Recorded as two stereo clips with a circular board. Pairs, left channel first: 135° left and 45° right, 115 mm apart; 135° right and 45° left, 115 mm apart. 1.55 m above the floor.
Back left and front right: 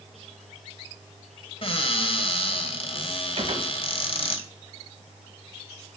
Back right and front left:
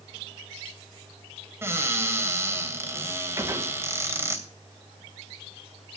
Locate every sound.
1.6 s a cupboard door: 110° left, 2.5 m
3.4 s a gunshot: 15° right, 2 m